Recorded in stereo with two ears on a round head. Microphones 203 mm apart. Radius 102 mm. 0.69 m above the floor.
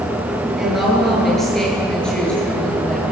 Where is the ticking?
No ticking in this recording.